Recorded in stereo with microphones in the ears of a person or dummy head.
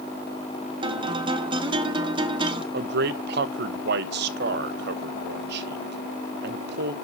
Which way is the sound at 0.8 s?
25° right (ahead or behind).